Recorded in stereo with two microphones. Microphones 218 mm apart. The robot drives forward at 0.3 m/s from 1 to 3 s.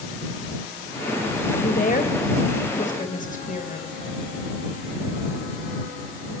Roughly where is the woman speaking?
Left.